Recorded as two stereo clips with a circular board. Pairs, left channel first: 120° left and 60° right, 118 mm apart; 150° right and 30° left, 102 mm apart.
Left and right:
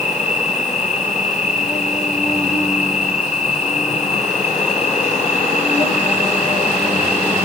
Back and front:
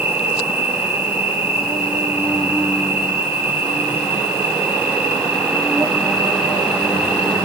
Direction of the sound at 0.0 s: 100° left.